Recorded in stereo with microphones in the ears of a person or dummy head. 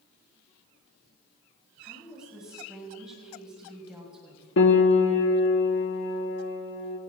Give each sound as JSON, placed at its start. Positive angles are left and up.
{"t": 1.8, "sound": "a woman speaking", "side_deg": -5, "distance_m": 5.5}
{"t": 4.6, "sound": "a piano", "side_deg": 65, "distance_m": 1.3}